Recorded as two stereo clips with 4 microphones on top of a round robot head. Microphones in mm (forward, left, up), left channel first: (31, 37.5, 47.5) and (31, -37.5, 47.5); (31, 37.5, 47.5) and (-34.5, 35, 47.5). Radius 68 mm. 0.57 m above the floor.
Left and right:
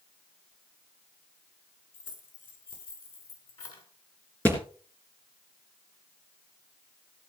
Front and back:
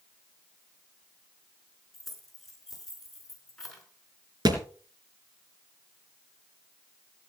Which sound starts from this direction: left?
Keys jangling, at 1.9 s.